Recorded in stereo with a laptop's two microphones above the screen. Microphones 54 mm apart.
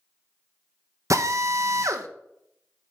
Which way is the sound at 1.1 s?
70° right (ahead or behind).